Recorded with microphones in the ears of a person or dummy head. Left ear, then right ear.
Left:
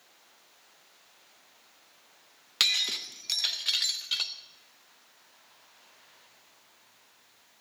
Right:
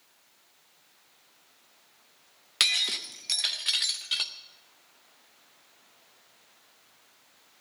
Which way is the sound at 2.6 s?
5° right (ahead or behind).